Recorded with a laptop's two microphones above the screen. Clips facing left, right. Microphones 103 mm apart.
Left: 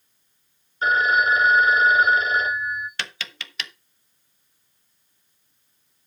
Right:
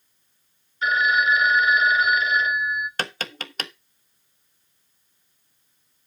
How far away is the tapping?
About 0.8 m.